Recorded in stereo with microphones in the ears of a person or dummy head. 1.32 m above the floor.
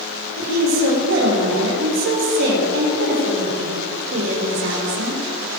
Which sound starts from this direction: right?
A woman speaking, at 0.4 s.